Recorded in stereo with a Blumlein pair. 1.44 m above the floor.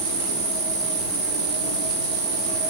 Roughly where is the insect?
Ahead right.